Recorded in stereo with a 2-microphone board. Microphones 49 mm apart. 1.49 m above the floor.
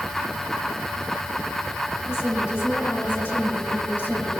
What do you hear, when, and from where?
2.1 s a woman speaking: 65° left (ahead or behind), 4.5 m; by 4.3 s 50° left (ahead or behind), 6 m